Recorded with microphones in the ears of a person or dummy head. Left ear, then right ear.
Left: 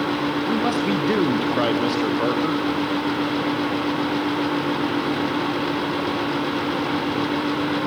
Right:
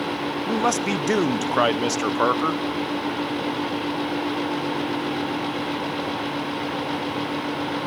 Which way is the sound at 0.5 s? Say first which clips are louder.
Right 3 dB; 40° right (ahead or behind).